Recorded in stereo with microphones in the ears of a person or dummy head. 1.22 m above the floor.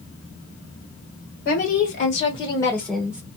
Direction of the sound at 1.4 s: 50° left (ahead or behind).